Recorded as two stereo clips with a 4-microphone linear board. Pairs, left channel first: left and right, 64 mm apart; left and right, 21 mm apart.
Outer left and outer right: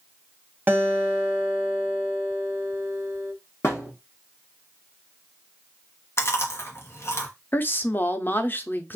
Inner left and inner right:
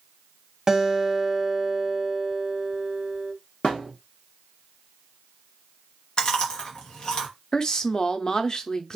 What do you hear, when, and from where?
0.7 s a guitar: 30° right (ahead or behind), 0.9 m
3.6 s a thud: 45° left (ahead or behind), 1.0 m
6.2 s chewing: 45° left (ahead or behind), 1.0 m
7.5 s a woman speaking: 35° left (ahead or behind), 0.6 m